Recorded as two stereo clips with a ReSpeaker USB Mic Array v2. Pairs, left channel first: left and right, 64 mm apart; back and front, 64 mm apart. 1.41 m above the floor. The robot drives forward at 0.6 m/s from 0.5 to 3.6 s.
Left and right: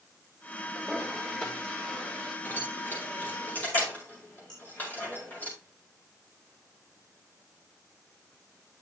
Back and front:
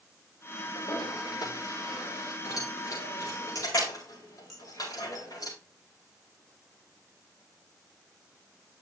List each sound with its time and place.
0.8 s a toilet flushing: 165° left, 4 m; by 2.4 s 170° left, 5 m
2.5 s keys jangling: 150° left, 4.5 m; by 5.5 s 155° left, 5 m
4.5 s dishes clattering: 90° left, 5.5 m